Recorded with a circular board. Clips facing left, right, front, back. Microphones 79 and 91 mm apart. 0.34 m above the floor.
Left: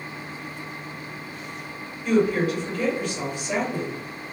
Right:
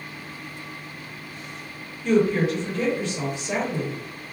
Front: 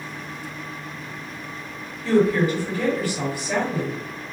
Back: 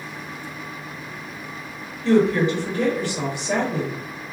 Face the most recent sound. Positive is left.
turn(degrees=-140)